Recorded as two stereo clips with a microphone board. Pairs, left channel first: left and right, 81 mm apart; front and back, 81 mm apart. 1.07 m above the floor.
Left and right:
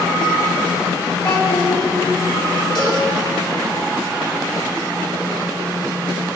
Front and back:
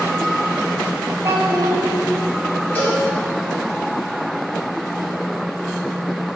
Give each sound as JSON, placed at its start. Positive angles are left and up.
{"t": 1.2, "sound": "a child speaking", "azimuth_deg": 120, "distance_m": 1.4}
{"t": 2.8, "sound": "a cowbell", "azimuth_deg": 65, "distance_m": 2.5}